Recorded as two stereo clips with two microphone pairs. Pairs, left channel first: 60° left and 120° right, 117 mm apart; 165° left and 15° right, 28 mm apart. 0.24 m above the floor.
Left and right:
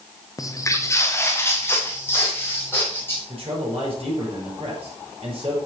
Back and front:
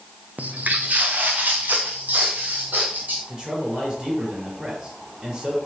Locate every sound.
0.4 s footsteps: 5° left, 0.8 m; by 3.2 s 10° right, 4 m
3.3 s a man speaking: 80° right, 5 m